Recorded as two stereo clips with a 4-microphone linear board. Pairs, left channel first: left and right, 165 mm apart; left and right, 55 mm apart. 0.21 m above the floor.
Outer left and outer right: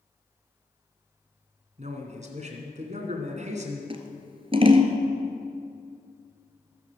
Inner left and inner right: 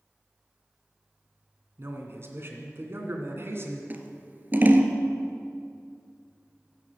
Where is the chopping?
I don't hear chopping.